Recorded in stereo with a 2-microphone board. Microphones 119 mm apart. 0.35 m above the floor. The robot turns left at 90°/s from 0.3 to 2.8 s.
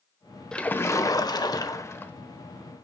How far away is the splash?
About 0.9 m.